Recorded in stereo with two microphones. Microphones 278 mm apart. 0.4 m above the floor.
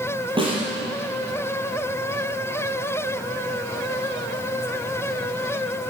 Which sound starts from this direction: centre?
A snare drum, at 0.4 s.